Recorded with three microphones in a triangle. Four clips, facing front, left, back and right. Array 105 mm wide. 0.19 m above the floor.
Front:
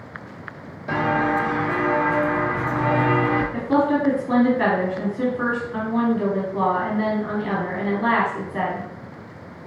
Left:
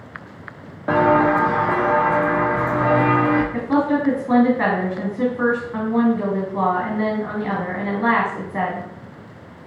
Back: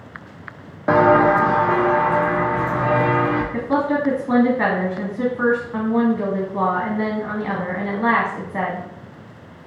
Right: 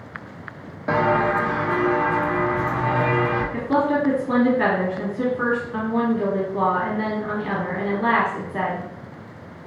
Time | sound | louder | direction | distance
0.9 | footsteps | left 4 dB, back 8 dB | 175° left | 0.5 m
3.5 | a woman speaking | left 1 dB, even | 140° left | 1.2 m